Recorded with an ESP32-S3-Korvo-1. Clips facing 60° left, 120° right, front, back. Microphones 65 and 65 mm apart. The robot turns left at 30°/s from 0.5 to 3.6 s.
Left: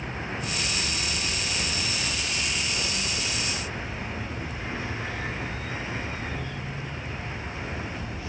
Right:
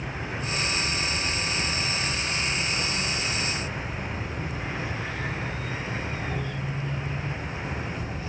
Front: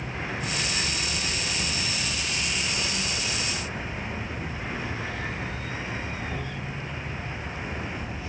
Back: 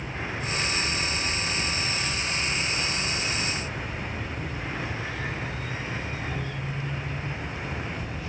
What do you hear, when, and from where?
0.0 s an insect: 15° left, 5.5 m; by 8.3 s 80° right, 5.5 m